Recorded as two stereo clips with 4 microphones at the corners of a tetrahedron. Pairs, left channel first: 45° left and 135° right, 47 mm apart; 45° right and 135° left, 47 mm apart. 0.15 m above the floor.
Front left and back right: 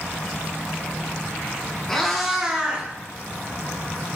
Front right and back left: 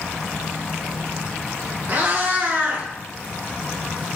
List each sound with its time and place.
1.9 s a cat meowing: 120° left, 0.9 m; by 4.2 s 160° right, 1.5 m